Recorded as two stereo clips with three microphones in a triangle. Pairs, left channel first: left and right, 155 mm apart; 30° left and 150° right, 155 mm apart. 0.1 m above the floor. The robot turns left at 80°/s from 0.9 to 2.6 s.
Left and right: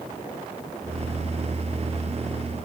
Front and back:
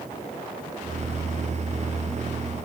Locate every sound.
Only background noise.